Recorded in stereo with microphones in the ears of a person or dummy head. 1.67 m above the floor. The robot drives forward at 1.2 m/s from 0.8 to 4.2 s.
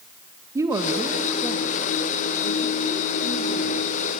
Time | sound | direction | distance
0.6 | a woman speaking | 20° right (ahead or behind) | 2 m